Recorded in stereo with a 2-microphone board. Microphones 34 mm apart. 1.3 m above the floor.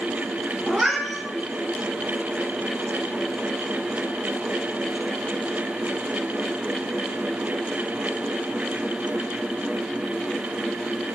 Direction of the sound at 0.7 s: 10° left (ahead or behind).